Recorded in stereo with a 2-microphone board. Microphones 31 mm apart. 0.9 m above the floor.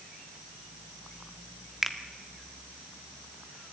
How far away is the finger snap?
About 1.5 m.